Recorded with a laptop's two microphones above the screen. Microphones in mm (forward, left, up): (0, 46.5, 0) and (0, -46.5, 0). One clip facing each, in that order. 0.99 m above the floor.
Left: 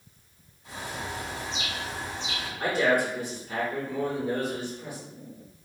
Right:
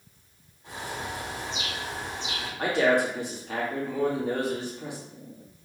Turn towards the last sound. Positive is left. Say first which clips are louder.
# right 1 dB
turn(degrees=-75)  # may be behind; listen again after turning